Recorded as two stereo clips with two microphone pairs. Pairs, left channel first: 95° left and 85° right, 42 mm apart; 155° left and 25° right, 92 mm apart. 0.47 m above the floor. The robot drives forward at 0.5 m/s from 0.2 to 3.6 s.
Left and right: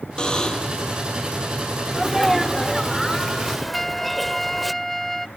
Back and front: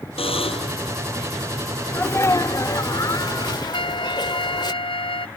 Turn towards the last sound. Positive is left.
turn(degrees=175)